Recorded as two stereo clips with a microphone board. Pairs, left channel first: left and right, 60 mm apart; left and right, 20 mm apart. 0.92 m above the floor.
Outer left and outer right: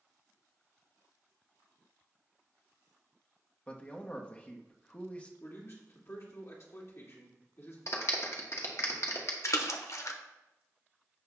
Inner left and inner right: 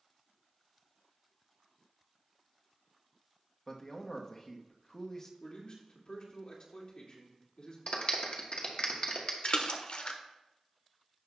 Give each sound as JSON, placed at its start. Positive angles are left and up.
{"t": 3.7, "sound": "a man speaking", "side_deg": 25, "distance_m": 1.1}
{"t": 5.4, "sound": "a man speaking", "side_deg": 50, "distance_m": 2.5}
{"t": 7.9, "sound": "a clap", "side_deg": 55, "distance_m": 1.4}
{"t": 9.4, "sound": "a splash", "side_deg": 55, "distance_m": 0.8}